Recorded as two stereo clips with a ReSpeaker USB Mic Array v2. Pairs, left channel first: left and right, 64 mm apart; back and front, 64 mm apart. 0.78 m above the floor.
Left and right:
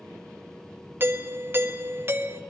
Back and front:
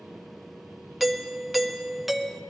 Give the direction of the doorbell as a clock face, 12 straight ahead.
3 o'clock.